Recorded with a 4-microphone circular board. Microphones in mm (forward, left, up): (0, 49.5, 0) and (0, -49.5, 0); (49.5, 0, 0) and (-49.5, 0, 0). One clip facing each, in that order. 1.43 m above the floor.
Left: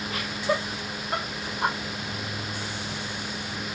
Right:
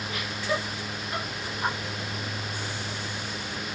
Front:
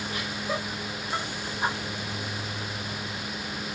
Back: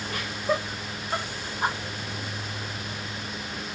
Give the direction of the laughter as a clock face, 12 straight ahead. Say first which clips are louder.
Left 3 dB, back 6 dB; 7 o'clock.